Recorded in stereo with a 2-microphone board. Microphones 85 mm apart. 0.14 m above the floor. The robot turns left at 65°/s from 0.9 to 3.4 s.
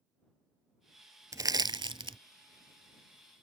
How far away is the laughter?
No laughter in this recording.